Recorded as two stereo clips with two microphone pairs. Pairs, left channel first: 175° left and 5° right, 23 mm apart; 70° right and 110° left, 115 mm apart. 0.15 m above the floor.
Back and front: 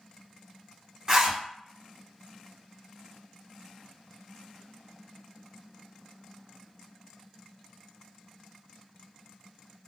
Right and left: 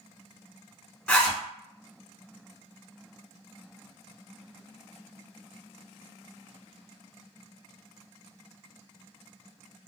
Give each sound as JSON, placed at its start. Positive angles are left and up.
{"t": 1.1, "sound": "a zipper", "azimuth_deg": -5, "distance_m": 1.1}